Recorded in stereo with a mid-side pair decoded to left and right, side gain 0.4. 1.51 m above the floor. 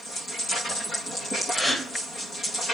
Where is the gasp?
5° left, 0.7 m.